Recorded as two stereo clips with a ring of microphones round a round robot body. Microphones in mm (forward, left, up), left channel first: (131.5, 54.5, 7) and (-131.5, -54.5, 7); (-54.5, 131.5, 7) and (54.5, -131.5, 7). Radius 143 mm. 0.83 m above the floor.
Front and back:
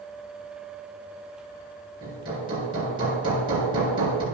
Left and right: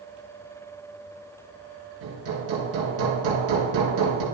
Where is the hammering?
80° right, 3 m.